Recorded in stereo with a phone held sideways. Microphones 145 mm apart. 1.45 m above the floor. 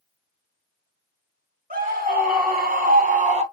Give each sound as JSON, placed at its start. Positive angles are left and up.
{"t": 1.7, "sound": "a scream", "side_deg": -75, "distance_m": 2.0}